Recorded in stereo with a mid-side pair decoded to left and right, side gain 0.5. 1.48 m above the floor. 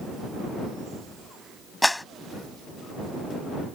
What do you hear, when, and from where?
1.8 s a clap: 10° left